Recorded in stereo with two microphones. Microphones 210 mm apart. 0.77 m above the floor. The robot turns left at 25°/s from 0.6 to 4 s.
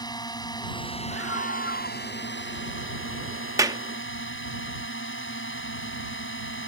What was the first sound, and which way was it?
A drone, 160° left.